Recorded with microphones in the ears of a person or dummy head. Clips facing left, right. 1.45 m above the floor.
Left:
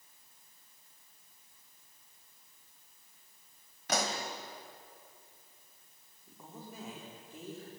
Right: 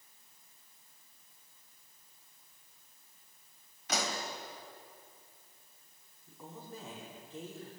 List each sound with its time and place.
3.9 s a pop: 50° left (ahead or behind), 3 m
6.3 s a woman speaking: 10° left (ahead or behind), 4.5 m